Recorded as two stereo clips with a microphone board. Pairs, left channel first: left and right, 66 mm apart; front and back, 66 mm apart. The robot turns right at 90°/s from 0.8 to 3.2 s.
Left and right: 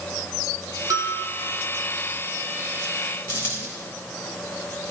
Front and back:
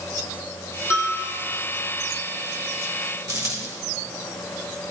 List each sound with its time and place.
0.9 s a bell: 55° right, 4.5 m; by 1.2 s 25° right, 4.5 m
3.3 s a dropped coin: 150° left, 6 m